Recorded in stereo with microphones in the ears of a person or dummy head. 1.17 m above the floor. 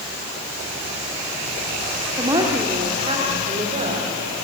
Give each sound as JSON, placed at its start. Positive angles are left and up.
{"t": 2.2, "sound": "a woman speaking", "side_deg": -20, "distance_m": 2.5}